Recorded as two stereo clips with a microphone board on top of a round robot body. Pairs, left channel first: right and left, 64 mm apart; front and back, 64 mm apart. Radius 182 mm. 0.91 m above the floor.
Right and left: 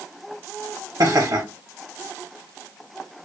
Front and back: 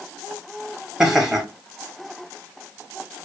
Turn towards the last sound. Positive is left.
turn(degrees=95)